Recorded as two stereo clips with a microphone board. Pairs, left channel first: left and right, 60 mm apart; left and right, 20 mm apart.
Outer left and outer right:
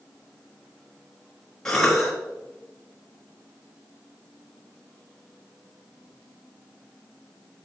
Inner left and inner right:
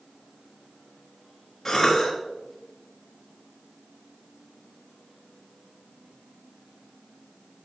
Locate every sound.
1.6 s a cough: 10° left (ahead or behind), 1.0 m